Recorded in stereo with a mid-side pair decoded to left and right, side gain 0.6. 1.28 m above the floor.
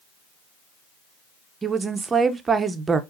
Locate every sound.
1.6 s a woman speaking: 25° right, 0.7 m